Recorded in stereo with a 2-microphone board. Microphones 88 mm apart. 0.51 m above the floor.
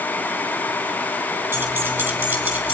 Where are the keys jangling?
25° right (ahead or behind), 6 m; by 2.8 s 20° right (ahead or behind), 4.5 m.